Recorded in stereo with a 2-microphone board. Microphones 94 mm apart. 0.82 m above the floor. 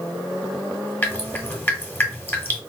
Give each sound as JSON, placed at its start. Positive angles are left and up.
{"t": 1.0, "sound": "dripping", "side_deg": 20, "distance_m": 1.1}